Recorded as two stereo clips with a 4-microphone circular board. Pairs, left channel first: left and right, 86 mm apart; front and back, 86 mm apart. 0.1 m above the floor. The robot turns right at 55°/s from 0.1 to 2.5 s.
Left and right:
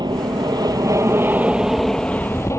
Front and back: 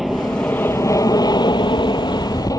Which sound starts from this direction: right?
An aircraft, at 0.0 s.